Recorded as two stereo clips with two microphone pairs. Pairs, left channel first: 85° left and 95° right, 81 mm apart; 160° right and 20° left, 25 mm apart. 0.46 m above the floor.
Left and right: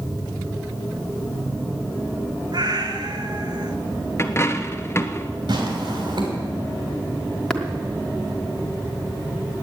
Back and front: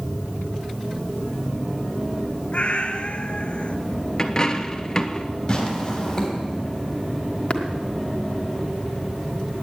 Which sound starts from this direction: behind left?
A dropped coin, at 4.2 s.